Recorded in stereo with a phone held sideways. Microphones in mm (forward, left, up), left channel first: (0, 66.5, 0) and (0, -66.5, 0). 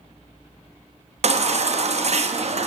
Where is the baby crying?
55° right (ahead or behind), 0.6 m.